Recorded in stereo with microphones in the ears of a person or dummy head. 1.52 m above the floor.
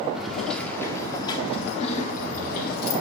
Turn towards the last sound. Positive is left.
turn(degrees=55)  # may be behind; listen again after turning